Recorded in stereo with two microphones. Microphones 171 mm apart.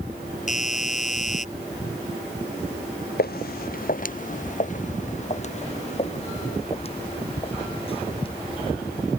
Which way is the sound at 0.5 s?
45° left (ahead or behind).